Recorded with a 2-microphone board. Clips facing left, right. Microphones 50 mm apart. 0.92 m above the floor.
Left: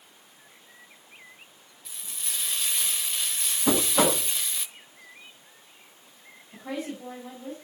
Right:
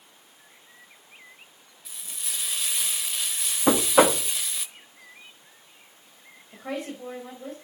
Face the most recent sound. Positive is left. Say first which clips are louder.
# right 1 dB
turn(degrees=-45)  # may be behind; listen again after turning